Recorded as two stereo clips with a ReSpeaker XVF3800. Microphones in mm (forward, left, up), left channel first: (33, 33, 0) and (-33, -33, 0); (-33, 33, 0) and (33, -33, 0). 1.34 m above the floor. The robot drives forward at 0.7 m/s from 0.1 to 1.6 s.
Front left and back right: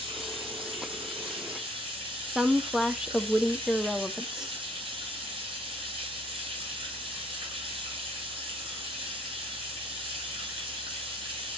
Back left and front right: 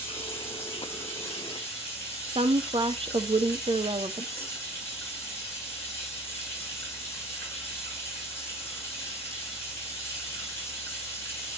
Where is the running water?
160° right, 6.5 m.